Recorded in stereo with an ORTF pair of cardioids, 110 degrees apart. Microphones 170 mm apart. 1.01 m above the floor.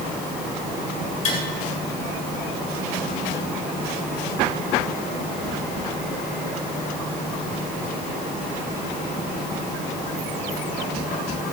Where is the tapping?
45° left, 3 m.